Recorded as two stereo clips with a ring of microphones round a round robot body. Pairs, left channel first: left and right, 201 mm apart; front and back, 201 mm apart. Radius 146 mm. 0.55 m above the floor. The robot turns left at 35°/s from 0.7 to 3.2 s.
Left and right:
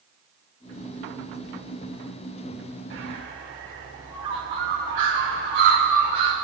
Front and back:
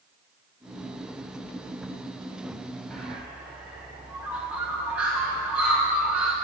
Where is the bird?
85° right, 1.8 m; by 6.3 s 95° right, 1.8 m.